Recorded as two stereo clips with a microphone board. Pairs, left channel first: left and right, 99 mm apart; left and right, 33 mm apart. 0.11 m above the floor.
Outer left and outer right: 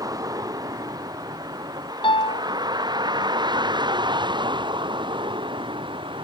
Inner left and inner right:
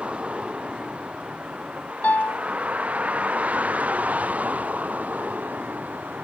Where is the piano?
60° left (ahead or behind).